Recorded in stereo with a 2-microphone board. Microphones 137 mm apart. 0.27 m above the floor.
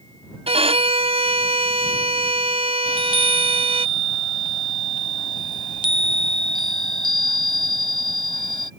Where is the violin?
45° right (ahead or behind).